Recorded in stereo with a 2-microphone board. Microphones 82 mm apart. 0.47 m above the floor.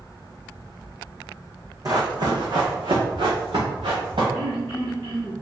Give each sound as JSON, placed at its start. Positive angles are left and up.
{"t": 1.9, "sound": "running footsteps", "side_deg": -50, "distance_m": 1.0}
{"t": 4.3, "sound": "throat clearing", "side_deg": -70, "distance_m": 1.8}